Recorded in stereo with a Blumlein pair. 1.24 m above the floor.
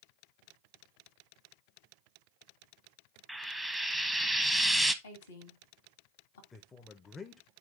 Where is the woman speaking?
65° left, 1.6 m.